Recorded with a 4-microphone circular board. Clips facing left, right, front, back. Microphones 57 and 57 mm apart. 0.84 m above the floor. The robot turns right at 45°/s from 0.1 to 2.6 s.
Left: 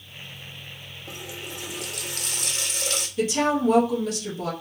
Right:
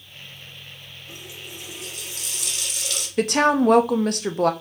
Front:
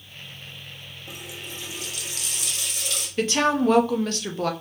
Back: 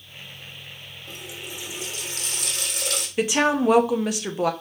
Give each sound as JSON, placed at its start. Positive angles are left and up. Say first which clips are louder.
{"t": 1.1, "sound": "a running tap", "louder": "left 4 dB, back 1 dB", "azimuth_deg": 80, "distance_m": 1.0}
{"t": 3.2, "sound": "a woman speaking", "louder": "right 4 dB, back 1 dB", "azimuth_deg": -105, "distance_m": 0.5}